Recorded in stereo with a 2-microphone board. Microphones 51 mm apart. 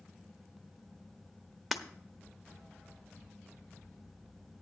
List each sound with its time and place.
1.7 s breaking glass: centre (ahead or behind), 0.9 m